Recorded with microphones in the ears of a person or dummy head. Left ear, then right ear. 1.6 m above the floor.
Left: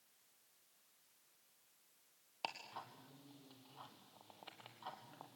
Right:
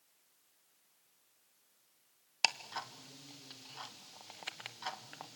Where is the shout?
I don't hear a shout.